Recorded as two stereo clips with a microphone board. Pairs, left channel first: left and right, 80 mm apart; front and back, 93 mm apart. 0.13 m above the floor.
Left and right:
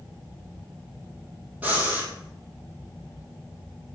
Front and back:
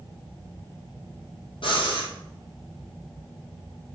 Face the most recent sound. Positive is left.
turn(degrees=-20)